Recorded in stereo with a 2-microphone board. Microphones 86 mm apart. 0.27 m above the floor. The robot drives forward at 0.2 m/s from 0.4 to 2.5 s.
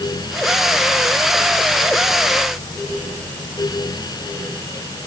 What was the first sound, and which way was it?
Only background noise.